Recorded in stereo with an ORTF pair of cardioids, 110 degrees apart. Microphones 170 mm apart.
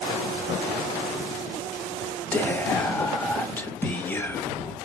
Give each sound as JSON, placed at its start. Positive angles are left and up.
{"t": 2.3, "sound": "whispering", "azimuth_deg": 10, "distance_m": 1.1}